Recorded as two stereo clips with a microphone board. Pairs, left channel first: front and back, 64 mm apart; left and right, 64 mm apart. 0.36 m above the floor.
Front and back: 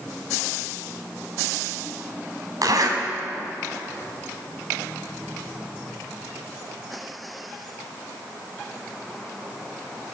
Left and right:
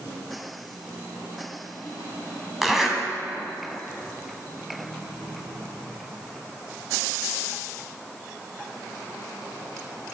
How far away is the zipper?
About 2.0 m.